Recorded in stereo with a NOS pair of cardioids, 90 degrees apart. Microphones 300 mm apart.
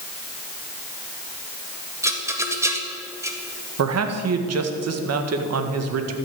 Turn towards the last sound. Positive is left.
turn(degrees=-55)